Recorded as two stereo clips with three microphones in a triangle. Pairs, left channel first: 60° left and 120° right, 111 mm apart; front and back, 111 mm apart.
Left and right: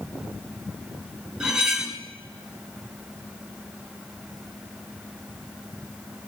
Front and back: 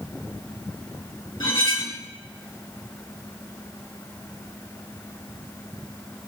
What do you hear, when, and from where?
1.4 s cutlery clinking: 35° right, 1.6 m